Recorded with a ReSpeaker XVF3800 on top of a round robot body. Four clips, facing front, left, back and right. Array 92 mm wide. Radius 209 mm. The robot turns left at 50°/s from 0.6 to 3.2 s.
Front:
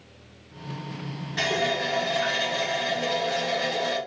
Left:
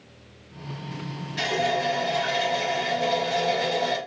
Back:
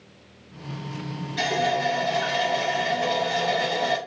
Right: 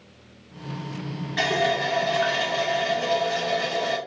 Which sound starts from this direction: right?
A running tap, at 1.4 s.